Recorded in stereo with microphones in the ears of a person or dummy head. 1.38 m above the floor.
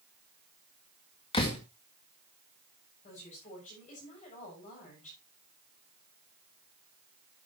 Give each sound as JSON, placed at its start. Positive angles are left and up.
{"t": 1.3, "sound": "a door slam", "side_deg": 25, "distance_m": 1.9}
{"t": 3.0, "sound": "a woman speaking", "side_deg": 40, "distance_m": 7.0}